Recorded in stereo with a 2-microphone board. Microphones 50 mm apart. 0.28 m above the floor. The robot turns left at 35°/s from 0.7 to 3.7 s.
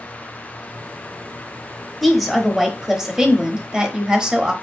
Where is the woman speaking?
Centre (ahead or behind), 0.9 m; by 4.5 s 20° right (ahead or behind), 0.9 m.